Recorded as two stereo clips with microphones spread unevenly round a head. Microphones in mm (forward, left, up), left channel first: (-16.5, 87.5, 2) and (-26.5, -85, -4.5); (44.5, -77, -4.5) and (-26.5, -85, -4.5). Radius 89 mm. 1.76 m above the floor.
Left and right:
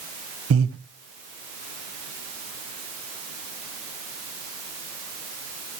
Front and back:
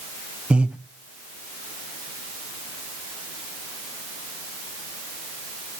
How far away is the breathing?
About 1.4 m.